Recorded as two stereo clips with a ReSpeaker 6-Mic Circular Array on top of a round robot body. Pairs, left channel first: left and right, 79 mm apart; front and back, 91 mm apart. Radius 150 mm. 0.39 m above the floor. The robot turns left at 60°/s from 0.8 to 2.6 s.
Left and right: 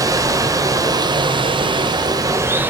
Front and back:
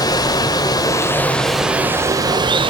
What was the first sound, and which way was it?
Running water, 45° right.